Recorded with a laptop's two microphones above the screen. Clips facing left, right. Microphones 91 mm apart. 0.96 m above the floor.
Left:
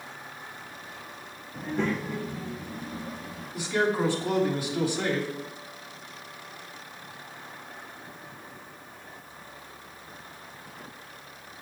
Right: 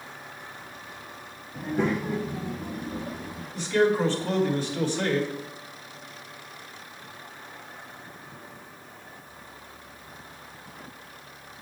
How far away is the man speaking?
About 3 m.